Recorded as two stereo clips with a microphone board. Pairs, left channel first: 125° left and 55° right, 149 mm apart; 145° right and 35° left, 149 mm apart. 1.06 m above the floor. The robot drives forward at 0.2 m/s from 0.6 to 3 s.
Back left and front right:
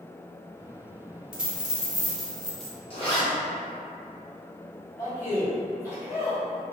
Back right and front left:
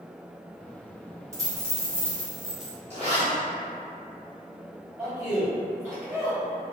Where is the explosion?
No explosion in this recording.